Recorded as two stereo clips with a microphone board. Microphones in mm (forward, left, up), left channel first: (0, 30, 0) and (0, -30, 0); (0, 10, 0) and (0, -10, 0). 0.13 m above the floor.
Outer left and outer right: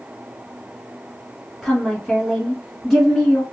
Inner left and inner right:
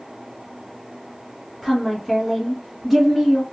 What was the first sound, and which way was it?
A woman speaking, 10° left (ahead or behind).